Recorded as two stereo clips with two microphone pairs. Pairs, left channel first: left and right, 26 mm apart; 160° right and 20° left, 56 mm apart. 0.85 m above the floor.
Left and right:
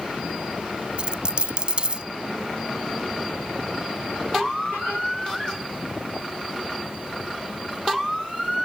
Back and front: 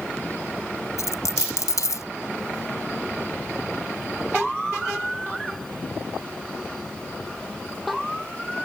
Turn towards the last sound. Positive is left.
turn(degrees=-140)